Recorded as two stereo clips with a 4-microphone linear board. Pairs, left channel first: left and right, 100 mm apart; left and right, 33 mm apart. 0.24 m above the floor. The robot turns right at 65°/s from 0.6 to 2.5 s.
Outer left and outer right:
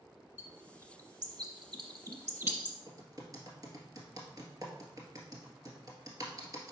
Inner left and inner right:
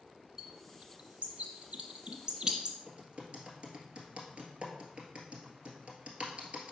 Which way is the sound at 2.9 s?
40° right (ahead or behind).